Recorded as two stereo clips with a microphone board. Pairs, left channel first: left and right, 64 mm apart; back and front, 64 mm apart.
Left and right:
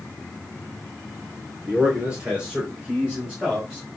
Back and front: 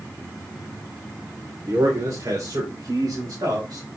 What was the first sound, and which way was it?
A man speaking, 20° right.